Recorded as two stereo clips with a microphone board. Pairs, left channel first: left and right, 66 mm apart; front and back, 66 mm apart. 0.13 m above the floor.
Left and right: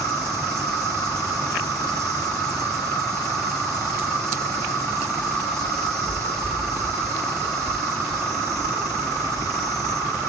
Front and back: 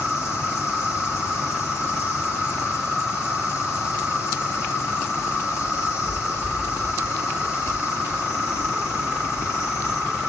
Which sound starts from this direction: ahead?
An insect, at 0.0 s.